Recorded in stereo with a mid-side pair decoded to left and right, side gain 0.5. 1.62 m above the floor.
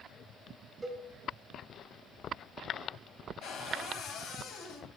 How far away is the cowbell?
About 1.7 m.